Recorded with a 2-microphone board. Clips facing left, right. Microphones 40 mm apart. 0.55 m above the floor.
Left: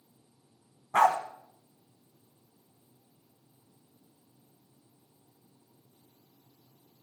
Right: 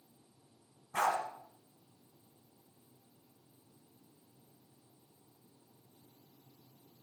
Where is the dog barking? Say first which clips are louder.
Left 9 dB; 60° left (ahead or behind), 1.3 m.